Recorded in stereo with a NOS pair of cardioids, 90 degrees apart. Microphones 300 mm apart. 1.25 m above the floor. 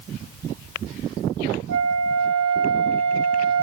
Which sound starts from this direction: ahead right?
A flute, at 1.7 s.